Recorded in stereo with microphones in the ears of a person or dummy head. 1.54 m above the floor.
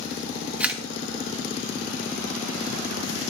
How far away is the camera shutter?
About 0.9 m.